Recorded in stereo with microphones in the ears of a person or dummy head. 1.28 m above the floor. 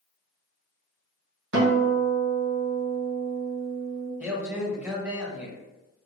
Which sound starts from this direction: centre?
A man speaking, at 4.2 s.